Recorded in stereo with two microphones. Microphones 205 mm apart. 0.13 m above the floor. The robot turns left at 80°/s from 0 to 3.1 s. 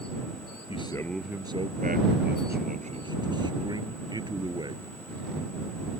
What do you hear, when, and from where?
0.7 s a man speaking: 40° left; by 5.0 s 155° right